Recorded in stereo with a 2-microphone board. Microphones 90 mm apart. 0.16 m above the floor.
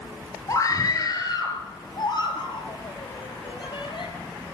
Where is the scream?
40° left (ahead or behind), 3.5 m; by 4.1 s 65° left (ahead or behind), 5.5 m.